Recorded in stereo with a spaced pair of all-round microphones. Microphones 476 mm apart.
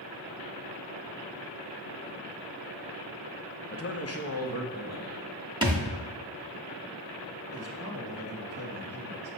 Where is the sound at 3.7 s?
30° left (ahead or behind), 0.5 m.